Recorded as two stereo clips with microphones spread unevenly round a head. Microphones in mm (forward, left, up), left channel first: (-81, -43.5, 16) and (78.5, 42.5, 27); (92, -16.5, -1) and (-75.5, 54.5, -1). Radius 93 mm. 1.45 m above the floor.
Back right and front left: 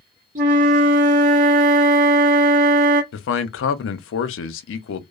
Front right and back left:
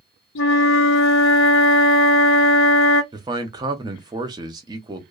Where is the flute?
20° right, 0.8 m.